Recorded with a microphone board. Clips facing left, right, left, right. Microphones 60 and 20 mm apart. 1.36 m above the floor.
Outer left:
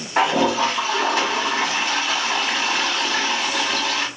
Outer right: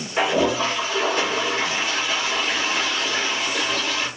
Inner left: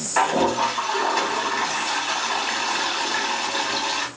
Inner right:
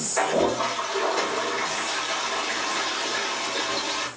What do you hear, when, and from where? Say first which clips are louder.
0.2 s a toilet flushing: outer left 2 dB, inner left 3 dB; 65° left (ahead or behind), 1.4 m